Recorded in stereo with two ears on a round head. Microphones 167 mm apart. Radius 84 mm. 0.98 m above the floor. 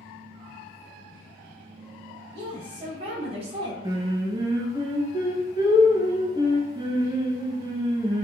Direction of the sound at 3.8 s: 20° right (ahead or behind).